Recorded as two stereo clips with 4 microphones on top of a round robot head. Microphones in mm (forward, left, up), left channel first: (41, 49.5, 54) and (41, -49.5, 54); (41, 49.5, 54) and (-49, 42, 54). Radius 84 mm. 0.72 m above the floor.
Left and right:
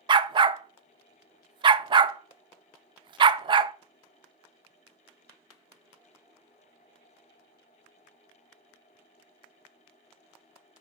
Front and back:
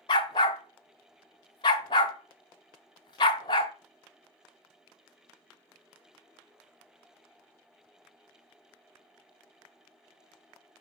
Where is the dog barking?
50° right, 0.5 m.